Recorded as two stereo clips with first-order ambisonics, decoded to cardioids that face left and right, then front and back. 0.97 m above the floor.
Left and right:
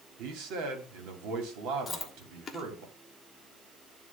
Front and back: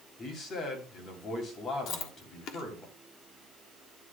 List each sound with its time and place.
0.2 s a man speaking: 65° right, 3 m
1.9 s chewing: 20° left, 1.2 m